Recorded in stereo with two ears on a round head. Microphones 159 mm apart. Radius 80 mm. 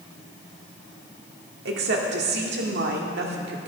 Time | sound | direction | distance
1.6 | a woman speaking | 65° right (ahead or behind) | 1.8 m